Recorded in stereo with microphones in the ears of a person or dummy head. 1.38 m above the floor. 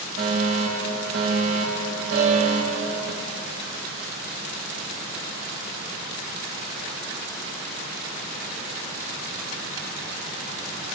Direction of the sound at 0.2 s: 70° right (ahead or behind).